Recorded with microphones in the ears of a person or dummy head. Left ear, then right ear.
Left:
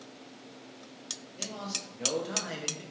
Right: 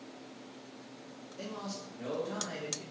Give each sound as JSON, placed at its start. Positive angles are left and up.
{"t": 1.4, "sound": "a man speaking", "side_deg": 10, "distance_m": 0.7}